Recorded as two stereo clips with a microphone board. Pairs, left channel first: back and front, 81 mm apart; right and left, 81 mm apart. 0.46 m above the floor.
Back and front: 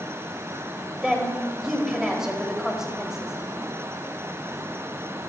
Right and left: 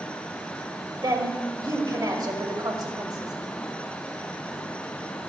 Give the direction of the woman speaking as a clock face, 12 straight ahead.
9 o'clock.